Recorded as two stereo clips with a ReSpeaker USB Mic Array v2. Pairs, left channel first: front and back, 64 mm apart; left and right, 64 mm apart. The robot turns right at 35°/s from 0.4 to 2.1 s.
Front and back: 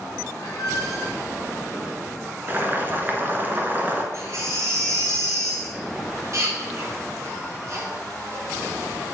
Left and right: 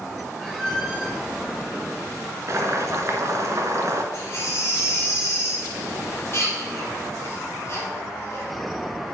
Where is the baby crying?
140° left, 1.9 m.